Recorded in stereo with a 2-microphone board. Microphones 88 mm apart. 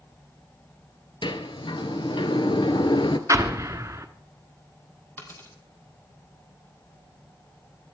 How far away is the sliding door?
About 0.9 m.